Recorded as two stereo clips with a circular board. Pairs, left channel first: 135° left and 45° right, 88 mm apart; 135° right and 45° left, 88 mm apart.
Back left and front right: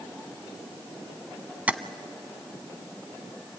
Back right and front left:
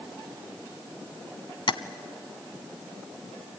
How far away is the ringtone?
No ringtone in this recording.